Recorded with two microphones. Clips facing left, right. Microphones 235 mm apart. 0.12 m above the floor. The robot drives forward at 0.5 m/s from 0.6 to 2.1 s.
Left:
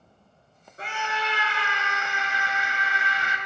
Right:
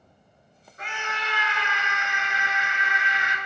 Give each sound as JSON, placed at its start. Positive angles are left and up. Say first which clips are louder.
{"t": 0.8, "sound": "a scream", "louder": "left 4 dB", "side_deg": 35, "distance_m": 1.9}